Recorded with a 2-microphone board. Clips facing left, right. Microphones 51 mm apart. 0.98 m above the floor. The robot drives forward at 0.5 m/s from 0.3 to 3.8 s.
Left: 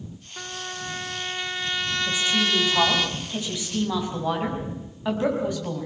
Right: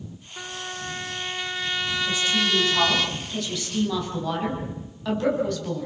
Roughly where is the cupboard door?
I don't hear a cupboard door.